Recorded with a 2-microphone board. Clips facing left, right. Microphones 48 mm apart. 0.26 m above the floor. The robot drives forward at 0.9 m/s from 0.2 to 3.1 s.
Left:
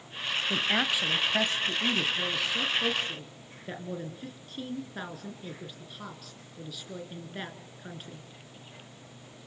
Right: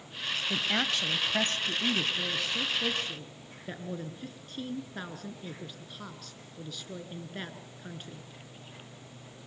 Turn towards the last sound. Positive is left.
turn(degrees=5)  # may be behind; listen again after turning